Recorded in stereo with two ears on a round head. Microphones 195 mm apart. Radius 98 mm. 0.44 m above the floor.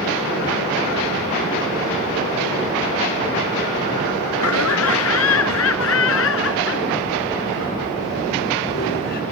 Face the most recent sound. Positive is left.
turn(degrees=45)  # may be behind; listen again after turning